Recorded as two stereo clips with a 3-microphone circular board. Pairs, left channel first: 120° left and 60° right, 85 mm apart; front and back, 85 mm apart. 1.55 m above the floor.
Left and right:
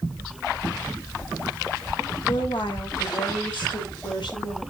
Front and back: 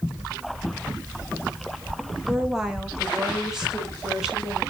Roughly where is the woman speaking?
Left.